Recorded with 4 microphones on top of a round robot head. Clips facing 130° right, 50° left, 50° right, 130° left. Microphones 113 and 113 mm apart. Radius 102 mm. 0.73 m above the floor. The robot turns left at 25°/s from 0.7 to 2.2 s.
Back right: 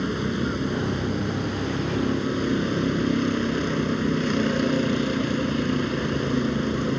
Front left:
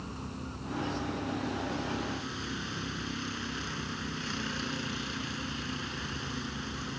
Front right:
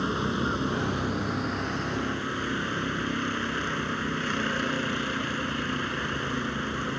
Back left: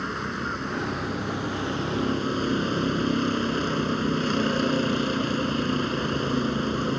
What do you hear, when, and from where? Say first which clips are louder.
0.0 s a vehicle: back right 15 dB, front right 3 dB; 125° right; by 7.0 s 165° right